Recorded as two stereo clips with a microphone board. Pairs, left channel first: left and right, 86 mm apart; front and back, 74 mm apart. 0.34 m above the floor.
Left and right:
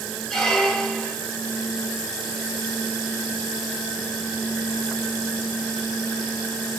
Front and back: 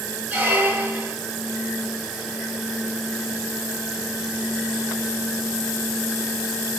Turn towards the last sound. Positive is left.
turn(degrees=165)